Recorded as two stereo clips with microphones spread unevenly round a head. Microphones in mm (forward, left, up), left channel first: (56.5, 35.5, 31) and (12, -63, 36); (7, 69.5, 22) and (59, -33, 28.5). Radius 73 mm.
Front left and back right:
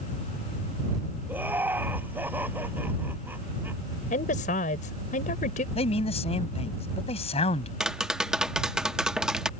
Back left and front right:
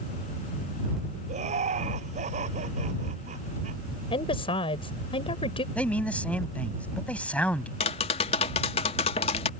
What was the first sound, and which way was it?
Laughter, 40° right.